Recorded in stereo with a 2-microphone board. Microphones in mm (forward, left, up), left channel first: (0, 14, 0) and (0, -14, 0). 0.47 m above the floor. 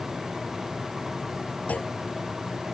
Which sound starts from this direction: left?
A clunk, at 1.7 s.